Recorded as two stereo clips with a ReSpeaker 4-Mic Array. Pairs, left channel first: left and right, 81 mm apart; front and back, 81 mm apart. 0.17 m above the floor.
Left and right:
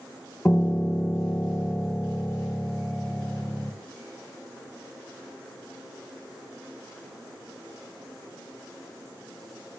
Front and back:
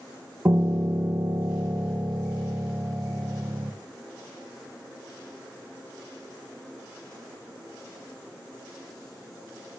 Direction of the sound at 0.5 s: 150° left.